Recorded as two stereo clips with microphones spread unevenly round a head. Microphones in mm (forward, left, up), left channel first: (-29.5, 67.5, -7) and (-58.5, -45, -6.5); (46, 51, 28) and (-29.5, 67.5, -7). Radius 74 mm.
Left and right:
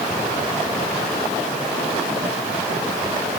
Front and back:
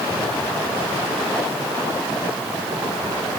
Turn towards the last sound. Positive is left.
No sound to turn to.